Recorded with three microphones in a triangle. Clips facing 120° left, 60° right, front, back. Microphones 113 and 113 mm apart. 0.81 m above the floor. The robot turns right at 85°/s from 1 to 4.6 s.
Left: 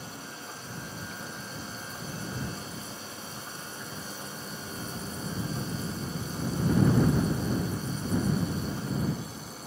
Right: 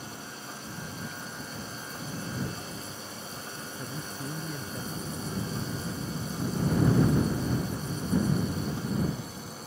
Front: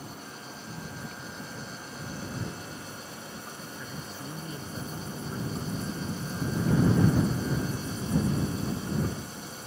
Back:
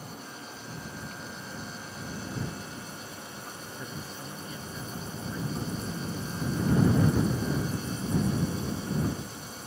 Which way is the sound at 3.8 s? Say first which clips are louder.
Right 4 dB, back 1 dB; 120° right.